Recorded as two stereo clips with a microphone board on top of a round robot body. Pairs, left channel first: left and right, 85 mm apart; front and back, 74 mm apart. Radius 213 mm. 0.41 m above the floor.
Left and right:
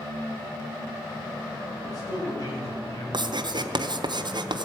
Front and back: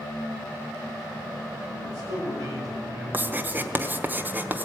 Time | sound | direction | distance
1.8 | a man speaking | 130° left | 7.5 m
3.1 | writing | 115° right | 1.2 m